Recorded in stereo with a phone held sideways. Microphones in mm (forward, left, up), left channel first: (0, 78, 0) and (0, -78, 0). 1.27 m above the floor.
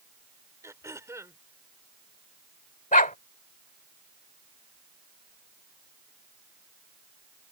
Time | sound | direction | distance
0.6 | throat clearing | 20° right (ahead or behind) | ?
2.9 | a dog barking | 60° left (ahead or behind) | ?